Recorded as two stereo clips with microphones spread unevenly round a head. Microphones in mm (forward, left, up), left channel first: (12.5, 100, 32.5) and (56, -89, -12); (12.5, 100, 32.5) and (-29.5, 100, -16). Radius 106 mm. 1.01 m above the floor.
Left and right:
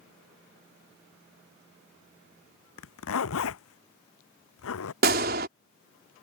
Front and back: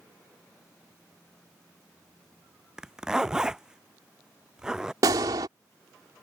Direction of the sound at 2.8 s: 100° left.